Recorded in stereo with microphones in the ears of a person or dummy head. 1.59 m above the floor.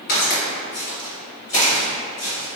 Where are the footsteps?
30° left (ahead or behind), 1.8 m; by 2.6 s 15° right (ahead or behind), 1.8 m.